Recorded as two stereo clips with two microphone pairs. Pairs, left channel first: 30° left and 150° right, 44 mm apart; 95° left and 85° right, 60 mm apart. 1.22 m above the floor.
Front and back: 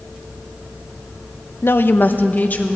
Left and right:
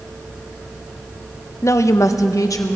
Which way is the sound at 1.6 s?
60° left.